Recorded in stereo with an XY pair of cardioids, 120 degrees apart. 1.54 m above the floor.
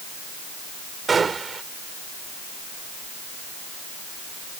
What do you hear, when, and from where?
1.1 s a gunshot: 30° right